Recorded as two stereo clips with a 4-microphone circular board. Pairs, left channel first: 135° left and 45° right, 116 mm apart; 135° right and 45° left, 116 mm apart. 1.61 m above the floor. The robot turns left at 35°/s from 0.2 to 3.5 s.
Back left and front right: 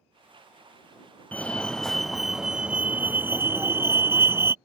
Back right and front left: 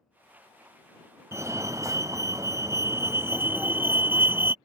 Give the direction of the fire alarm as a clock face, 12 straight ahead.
10 o'clock.